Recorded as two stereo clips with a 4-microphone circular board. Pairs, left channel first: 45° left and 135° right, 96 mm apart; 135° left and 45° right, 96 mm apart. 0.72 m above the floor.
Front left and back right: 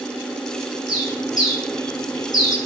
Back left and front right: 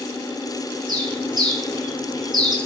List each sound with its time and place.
0.9 s a bird: 5° right, 7.5 m